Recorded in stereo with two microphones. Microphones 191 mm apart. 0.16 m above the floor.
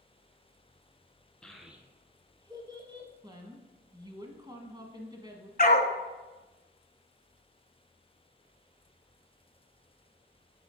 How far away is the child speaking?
About 1.0 m.